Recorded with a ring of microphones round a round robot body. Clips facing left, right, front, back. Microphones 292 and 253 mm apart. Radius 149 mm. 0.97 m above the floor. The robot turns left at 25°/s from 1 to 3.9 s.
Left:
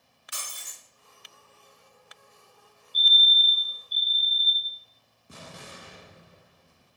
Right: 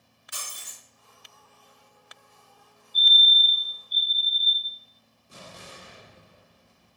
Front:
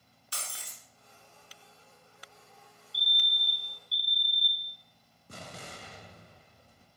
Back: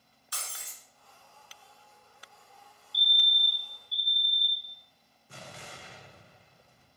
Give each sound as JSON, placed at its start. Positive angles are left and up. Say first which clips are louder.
{"t": 0.3, "sound": "breaking glass", "louder": "right 1 dB, front 1 dB", "azimuth_deg": 60, "distance_m": 2.5}
{"t": 2.9, "sound": "a fire alarm", "louder": "right 1 dB, back 2 dB", "azimuth_deg": 85, "distance_m": 1.4}
{"t": 5.3, "sound": "an explosion", "louder": "left 1 dB, front 2 dB", "azimuth_deg": 50, "distance_m": 0.8}